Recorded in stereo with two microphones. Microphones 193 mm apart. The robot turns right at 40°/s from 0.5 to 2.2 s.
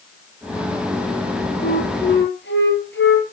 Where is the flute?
50° left (ahead or behind), 5.5 m; by 3.2 s 70° left (ahead or behind), 5.5 m.